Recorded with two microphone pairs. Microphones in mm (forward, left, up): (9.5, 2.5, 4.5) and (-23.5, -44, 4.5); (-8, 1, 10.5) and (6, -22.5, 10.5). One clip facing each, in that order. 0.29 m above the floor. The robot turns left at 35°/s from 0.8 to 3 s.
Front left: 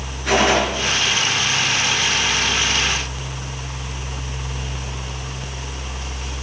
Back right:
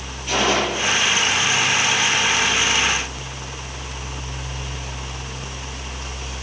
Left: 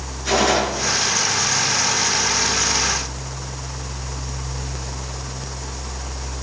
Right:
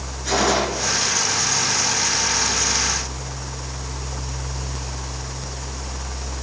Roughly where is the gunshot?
Ahead left.